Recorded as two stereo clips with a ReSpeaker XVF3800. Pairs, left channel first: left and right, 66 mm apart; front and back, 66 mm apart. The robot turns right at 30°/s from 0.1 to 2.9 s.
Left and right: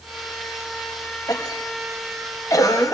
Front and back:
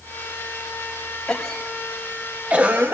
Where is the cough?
75° left, 1.6 m; by 3.0 s 125° left, 1.6 m.